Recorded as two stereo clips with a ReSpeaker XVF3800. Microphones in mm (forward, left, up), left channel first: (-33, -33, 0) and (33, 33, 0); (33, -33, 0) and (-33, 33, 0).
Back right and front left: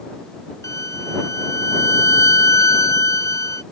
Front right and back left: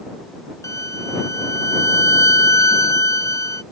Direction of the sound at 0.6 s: 90° right.